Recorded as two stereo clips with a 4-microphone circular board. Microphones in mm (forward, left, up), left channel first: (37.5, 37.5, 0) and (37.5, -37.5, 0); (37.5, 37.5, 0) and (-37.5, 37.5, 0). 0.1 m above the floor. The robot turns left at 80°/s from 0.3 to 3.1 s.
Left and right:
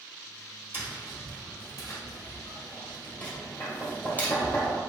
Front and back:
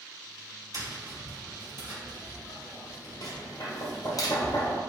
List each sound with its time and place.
0.7 s tapping: 145° right, 1.9 m; by 4.8 s 25° left, 1.9 m